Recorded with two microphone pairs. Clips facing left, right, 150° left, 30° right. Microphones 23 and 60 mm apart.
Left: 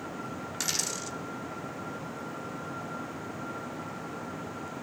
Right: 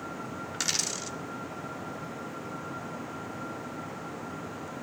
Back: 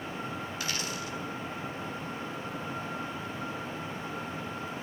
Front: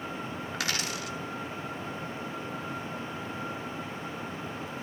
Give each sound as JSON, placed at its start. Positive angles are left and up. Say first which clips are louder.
{"t": 0.5, "sound": "a dropped coin", "louder": "right 2 dB, front 2 dB", "azimuth_deg": -20, "distance_m": 0.9}